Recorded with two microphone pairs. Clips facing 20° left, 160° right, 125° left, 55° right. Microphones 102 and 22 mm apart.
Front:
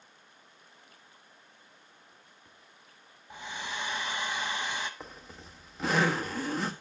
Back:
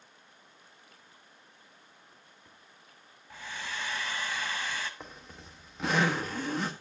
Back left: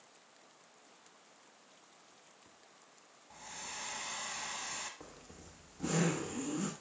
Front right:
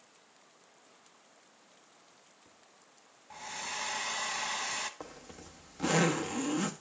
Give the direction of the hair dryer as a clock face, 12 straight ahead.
1 o'clock.